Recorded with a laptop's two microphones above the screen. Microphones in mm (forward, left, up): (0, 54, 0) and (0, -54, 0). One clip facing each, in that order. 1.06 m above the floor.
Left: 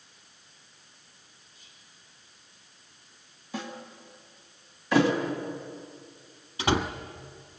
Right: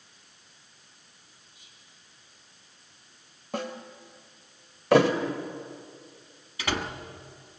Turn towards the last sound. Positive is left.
turn(degrees=25)  # may be behind; listen again after turning